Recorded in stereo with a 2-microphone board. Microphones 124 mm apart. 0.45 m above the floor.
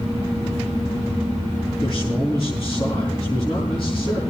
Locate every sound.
1.8 s a man speaking: 50° left (ahead or behind), 5.5 m